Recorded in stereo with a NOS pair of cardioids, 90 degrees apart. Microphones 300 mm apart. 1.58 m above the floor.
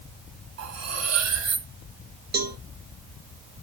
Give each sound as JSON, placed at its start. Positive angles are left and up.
{"t": 0.6, "sound": "cutlery clinking", "azimuth_deg": -60, "distance_m": 4.0}
{"t": 2.3, "sound": "a cowbell", "azimuth_deg": -30, "distance_m": 2.5}